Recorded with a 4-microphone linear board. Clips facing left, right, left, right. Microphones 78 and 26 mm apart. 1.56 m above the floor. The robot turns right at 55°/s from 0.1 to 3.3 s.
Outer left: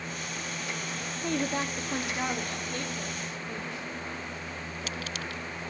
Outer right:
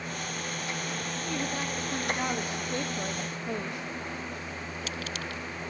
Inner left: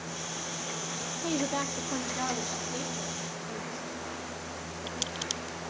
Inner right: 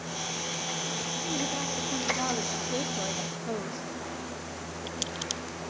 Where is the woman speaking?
125° left, 1.1 m; by 3.9 s 120° right, 1.1 m.